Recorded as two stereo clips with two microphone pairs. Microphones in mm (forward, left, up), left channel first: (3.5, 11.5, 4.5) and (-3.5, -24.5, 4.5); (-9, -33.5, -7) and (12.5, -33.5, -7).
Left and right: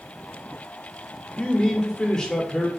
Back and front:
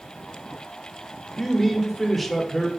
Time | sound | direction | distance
1.4 | a man speaking | 110° left | 0.9 m